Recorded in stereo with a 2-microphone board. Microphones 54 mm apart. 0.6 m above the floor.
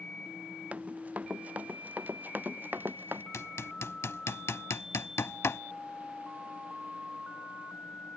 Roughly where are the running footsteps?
Right.